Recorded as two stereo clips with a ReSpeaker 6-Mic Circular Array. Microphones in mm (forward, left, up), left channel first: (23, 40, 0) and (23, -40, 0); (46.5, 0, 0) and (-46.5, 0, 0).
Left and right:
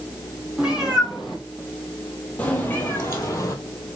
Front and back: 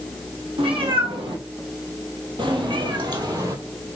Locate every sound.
0.6 s a cat meowing: 170° right, 2.5 m; by 3.5 s 135° left, 2 m